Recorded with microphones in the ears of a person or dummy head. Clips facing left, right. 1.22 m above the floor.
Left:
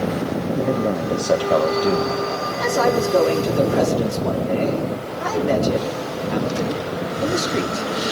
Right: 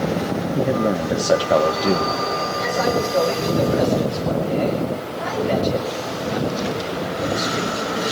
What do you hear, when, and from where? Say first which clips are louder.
0.6 s a man speaking: right 2 dB; 5° right (ahead or behind), 1.4 m
2.6 s a man speaking: left 3 dB; 65° left (ahead or behind), 3 m